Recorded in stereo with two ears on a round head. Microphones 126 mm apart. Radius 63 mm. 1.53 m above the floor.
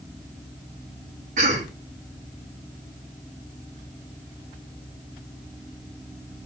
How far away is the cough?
About 4.5 m.